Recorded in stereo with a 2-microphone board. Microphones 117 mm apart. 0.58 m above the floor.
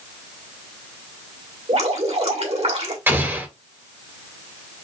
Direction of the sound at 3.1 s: 20° right (ahead or behind).